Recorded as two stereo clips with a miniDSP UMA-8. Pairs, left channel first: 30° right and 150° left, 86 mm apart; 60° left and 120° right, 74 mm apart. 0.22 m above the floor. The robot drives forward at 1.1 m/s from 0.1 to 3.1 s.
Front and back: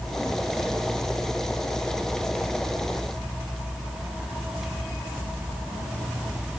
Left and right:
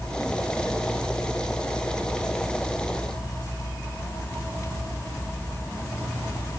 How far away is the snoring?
I don't hear snoring.